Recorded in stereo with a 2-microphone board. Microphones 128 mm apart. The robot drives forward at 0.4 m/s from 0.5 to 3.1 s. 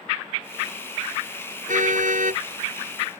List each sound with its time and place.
1.7 s a car horn: 85° right